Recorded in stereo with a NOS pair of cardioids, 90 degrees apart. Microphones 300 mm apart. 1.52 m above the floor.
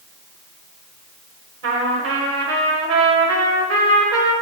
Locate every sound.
1.6 s a trumpet: 50° right, 1.0 m